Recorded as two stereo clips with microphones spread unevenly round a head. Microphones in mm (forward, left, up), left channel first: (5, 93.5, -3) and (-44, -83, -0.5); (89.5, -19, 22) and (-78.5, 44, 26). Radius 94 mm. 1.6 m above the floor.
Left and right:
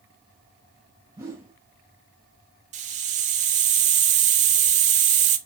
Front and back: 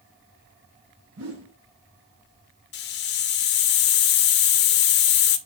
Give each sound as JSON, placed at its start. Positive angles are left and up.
{"t": 1.1, "sound": "a whoosh", "azimuth_deg": 180, "distance_m": 3.0}
{"t": 2.7, "sound": "a hiss", "azimuth_deg": -55, "distance_m": 0.7}